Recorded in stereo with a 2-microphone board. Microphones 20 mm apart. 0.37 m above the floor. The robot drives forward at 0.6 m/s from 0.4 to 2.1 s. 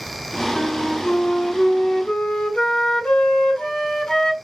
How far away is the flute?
About 1.1 m.